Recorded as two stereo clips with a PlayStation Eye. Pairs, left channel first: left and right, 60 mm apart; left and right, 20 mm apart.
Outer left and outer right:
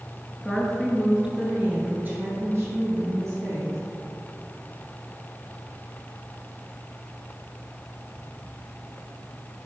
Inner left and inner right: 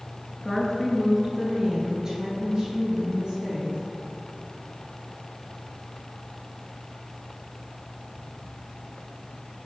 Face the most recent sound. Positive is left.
turn(degrees=-60)  # may be behind; listen again after turning